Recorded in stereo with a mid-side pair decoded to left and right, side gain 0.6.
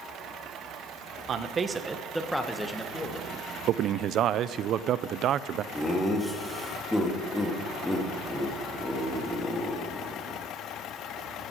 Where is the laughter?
5° left, 3 m.